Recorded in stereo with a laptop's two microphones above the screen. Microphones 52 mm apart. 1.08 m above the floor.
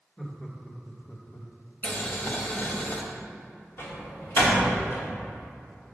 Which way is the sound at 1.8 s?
35° left (ahead or behind).